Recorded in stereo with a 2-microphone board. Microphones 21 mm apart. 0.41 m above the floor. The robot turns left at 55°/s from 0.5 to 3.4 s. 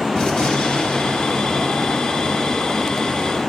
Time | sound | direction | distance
0.1 | a gunshot | 135° left | 1.8 m